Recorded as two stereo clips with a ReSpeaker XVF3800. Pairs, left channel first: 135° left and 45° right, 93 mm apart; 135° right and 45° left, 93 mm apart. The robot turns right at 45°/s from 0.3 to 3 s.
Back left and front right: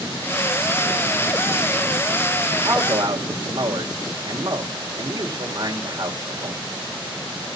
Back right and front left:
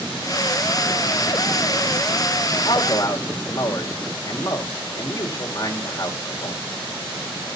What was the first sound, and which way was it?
A man speaking, 105° right.